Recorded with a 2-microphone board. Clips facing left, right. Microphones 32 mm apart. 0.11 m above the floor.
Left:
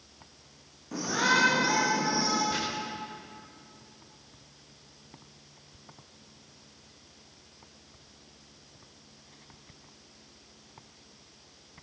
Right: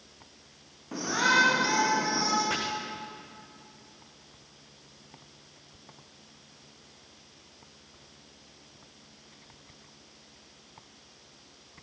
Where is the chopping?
60° right (ahead or behind), 6 m.